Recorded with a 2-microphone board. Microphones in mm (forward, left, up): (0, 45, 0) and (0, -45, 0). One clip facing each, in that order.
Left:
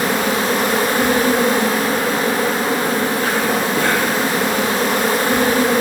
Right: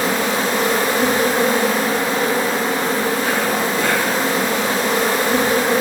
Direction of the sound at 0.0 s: 65° left (ahead or behind).